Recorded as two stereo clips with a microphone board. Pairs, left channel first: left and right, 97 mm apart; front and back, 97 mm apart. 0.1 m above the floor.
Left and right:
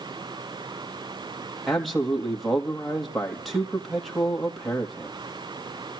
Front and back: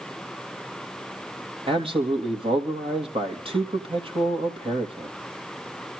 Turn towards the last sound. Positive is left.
turn(degrees=180)